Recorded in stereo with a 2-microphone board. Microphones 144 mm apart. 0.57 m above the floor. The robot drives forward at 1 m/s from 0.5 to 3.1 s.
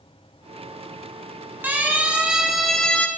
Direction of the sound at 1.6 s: 15° right (ahead or behind).